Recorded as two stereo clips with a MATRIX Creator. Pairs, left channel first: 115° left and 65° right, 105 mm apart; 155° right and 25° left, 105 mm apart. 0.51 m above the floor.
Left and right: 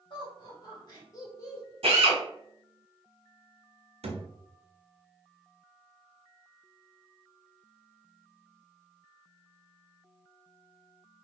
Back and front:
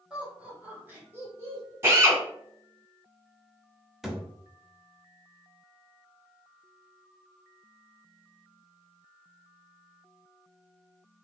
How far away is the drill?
About 1.4 m.